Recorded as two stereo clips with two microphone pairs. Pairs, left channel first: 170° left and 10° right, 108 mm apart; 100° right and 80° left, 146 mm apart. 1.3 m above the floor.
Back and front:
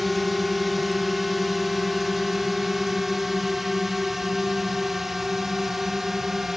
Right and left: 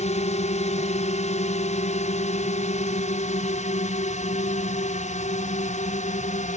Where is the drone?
100° right; by 6.6 s 95° right.